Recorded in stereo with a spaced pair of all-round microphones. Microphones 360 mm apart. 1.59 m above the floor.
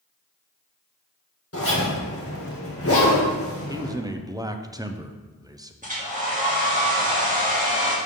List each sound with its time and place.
1.5 s a zipper: 40° left (ahead or behind), 1.8 m
3.7 s a man speaking: 10° right (ahead or behind), 0.5 m
5.8 s a hair dryer: 20° right (ahead or behind), 2.0 m